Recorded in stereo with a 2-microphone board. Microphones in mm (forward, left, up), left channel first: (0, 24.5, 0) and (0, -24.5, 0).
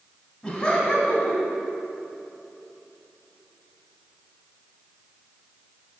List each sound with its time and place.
0.4 s laughter: 10° left (ahead or behind), 1.7 m